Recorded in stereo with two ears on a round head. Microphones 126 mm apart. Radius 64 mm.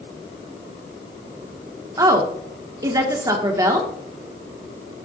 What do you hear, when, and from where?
2.0 s a woman speaking: 25° right (ahead or behind), 1.1 m